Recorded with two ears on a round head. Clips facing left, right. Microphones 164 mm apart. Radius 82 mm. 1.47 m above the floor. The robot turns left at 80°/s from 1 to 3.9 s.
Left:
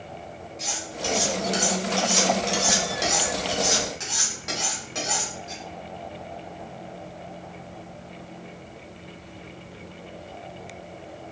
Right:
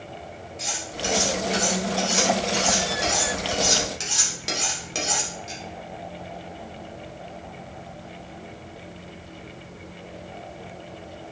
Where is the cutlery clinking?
10° right (ahead or behind), 2.5 m; by 5.6 s 40° right (ahead or behind), 2.5 m.